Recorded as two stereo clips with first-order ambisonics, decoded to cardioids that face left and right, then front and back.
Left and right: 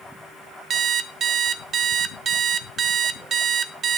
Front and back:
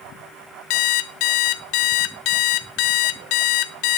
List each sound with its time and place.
0.7 s an alarm clock: 25° right, 0.6 m